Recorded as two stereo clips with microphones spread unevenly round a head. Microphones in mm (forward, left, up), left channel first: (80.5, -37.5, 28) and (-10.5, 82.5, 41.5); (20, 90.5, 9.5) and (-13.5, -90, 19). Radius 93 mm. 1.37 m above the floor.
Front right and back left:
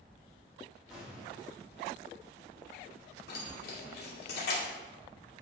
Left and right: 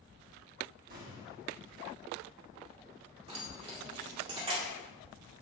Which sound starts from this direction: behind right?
An explosion, at 0.9 s.